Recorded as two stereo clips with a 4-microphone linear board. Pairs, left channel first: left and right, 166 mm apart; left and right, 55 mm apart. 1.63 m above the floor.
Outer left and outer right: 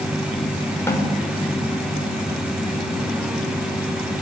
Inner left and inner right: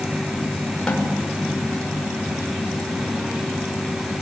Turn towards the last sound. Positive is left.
turn(degrees=15)  # may be behind; listen again after turning